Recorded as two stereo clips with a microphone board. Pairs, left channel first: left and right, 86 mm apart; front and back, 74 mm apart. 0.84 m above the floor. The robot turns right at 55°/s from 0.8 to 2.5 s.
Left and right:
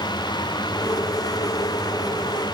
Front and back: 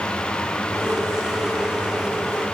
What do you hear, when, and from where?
Only background noise.